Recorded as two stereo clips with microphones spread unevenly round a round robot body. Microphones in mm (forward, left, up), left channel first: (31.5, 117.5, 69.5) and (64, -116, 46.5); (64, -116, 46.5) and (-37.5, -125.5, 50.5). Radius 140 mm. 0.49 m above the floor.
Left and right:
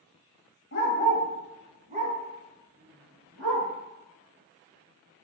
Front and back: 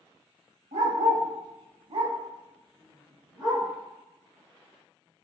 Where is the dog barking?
145° left, 0.6 m; by 3.7 s 130° right, 2.5 m.